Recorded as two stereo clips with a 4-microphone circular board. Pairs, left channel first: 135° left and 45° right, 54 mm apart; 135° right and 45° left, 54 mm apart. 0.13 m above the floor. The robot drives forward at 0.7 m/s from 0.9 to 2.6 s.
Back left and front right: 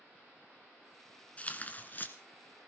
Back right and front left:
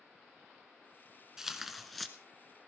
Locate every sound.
1.4 s tearing paper: 115° left, 1.5 m; by 2.1 s 140° left, 1.7 m